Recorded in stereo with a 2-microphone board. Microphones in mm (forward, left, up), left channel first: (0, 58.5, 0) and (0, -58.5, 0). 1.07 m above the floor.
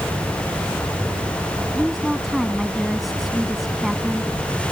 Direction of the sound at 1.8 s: Centre (ahead or behind).